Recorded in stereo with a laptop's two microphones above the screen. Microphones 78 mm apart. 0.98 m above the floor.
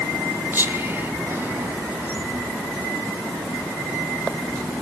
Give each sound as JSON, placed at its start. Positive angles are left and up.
{"t": 0.5, "sound": "whispering", "side_deg": -30, "distance_m": 2.5}